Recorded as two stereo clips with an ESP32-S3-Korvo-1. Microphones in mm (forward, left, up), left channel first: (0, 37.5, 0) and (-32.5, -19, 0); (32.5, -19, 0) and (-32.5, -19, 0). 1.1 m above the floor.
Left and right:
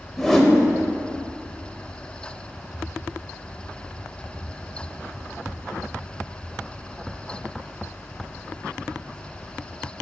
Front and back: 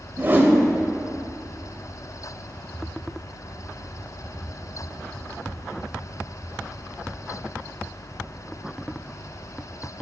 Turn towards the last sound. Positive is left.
turn(degrees=140)